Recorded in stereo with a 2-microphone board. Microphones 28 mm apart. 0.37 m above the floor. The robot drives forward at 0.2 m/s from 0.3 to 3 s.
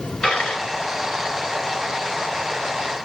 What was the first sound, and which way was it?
A dropped coin, 50° left (ahead or behind).